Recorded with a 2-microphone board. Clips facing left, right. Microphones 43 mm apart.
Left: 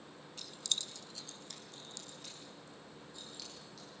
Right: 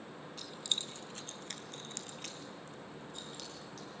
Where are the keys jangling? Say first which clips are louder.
Right 2 dB; centre (ahead or behind), 1.2 m; by 3.9 s 65° right (ahead or behind), 5 m.